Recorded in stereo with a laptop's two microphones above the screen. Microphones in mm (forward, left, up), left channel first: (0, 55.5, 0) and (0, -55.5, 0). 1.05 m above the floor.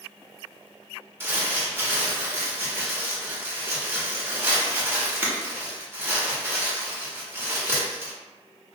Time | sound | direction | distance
1.2 | crumpling | 20° right (ahead or behind) | 0.9 m